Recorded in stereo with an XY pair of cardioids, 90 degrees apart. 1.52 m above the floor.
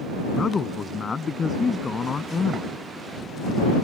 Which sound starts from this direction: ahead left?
A man speaking, at 0.3 s.